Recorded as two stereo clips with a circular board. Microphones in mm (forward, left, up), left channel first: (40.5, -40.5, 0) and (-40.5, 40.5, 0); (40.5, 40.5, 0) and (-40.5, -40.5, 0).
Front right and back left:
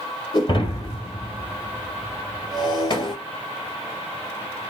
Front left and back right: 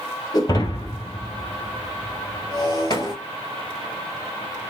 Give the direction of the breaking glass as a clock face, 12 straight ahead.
12 o'clock.